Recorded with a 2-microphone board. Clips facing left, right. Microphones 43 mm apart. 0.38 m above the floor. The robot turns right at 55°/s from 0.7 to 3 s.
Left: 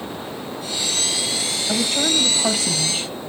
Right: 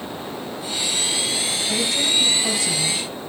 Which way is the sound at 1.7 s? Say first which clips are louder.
Left 2 dB; 45° left.